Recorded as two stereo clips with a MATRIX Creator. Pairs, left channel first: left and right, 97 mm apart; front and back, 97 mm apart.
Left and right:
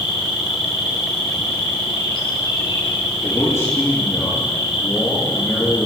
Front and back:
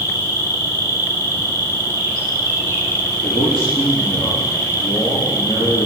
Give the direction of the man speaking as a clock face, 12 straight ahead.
11 o'clock.